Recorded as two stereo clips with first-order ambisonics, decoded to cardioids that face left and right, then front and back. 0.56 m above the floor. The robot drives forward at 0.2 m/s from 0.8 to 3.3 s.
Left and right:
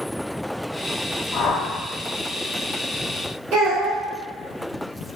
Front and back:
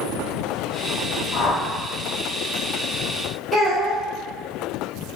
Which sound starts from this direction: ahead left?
A whoosh, at 1.3 s.